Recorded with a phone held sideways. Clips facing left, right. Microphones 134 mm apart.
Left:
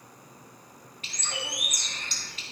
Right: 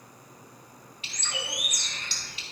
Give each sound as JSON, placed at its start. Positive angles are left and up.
{"t": 1.0, "sound": "a bird", "side_deg": 50, "distance_m": 2.5}